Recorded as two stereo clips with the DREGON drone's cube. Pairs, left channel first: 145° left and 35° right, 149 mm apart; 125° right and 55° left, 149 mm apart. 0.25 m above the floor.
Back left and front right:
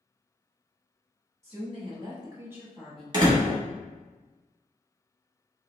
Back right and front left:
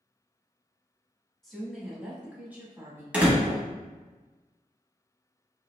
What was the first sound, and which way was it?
A woman speaking, 35° right.